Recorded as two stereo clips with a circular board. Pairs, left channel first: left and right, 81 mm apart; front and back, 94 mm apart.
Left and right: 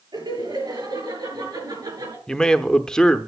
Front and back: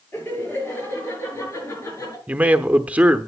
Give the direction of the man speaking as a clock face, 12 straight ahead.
7 o'clock.